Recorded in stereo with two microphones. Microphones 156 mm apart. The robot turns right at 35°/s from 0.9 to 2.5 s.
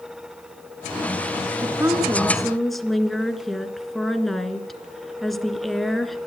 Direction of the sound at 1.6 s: 30° right.